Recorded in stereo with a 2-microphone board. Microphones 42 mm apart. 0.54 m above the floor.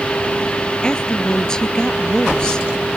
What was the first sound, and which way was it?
A woman speaking, 20° left (ahead or behind).